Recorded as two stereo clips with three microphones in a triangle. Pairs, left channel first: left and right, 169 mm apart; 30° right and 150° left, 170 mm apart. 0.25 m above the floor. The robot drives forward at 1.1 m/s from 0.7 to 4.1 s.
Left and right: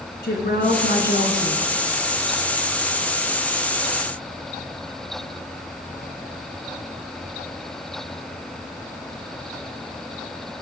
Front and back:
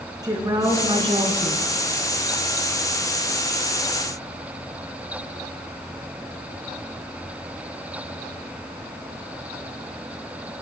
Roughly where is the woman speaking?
Left.